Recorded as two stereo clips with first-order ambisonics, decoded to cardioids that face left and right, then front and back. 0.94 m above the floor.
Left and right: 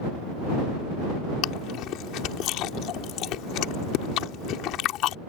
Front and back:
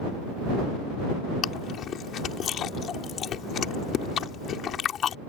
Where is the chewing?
55° left.